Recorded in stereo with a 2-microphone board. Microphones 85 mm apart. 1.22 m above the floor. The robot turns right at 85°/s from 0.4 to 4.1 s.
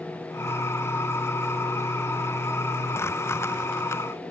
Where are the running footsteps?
I don't hear running footsteps.